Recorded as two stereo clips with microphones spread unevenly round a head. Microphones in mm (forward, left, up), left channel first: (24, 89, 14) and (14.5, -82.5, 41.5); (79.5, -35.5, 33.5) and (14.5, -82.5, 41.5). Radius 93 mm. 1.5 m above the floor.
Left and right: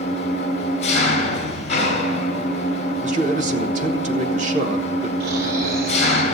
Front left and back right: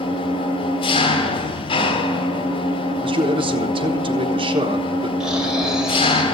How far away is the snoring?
About 3.5 m.